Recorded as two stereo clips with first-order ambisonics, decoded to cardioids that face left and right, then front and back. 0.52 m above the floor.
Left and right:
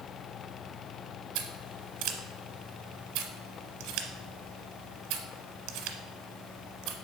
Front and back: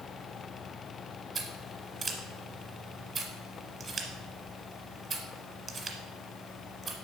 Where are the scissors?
115° right, 1.1 m.